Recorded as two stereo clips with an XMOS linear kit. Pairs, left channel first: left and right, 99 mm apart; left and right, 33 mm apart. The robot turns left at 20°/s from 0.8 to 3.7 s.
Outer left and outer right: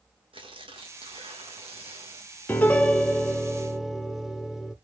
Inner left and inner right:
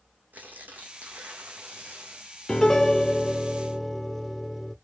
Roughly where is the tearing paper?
Ahead right.